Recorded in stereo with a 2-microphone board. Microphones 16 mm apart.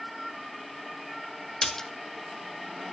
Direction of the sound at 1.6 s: 35° left (ahead or behind).